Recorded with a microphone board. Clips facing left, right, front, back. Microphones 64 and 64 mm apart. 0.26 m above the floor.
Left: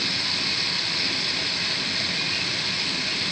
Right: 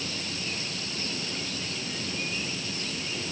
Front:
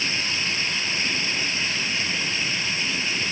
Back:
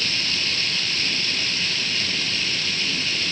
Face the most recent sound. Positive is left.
turn(degrees=70)